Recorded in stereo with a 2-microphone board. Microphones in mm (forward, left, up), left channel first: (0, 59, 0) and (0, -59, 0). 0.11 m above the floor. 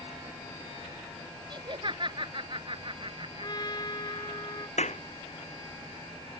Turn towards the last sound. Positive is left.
turn(degrees=70)  # may be behind; listen again after turning